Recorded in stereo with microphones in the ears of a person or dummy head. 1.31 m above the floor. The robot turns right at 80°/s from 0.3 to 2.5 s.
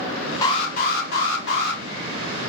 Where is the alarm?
30° left, 1.7 m; by 1.8 s 140° left, 1.7 m.